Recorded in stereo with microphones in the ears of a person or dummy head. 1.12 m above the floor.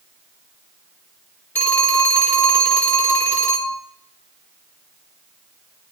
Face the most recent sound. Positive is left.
turn(degrees=10)  # may be behind; listen again after turning